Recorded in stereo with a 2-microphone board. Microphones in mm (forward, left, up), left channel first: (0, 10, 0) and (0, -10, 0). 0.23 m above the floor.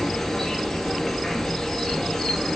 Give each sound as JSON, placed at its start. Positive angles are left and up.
{"t": 0.0, "sound": "an insect", "side_deg": 25, "distance_m": 1.6}